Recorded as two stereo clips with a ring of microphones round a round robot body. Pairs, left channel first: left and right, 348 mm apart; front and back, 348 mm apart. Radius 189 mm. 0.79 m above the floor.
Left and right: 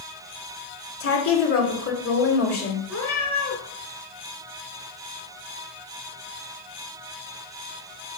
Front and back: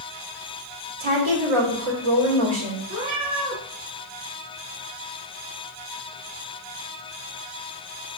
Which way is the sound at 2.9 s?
Straight behind.